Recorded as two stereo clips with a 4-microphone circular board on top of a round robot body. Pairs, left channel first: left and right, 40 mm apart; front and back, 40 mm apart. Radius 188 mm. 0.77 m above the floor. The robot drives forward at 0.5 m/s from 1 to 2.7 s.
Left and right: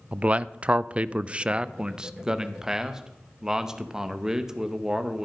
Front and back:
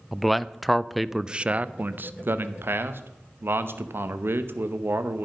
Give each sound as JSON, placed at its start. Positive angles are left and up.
{"t": 0.1, "sound": "a man speaking", "azimuth_deg": -90, "distance_m": 0.5}